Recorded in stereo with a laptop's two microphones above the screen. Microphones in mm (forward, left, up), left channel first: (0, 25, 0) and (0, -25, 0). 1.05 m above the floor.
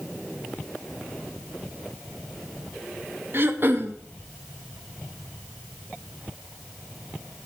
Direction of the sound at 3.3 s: 45° right (ahead or behind).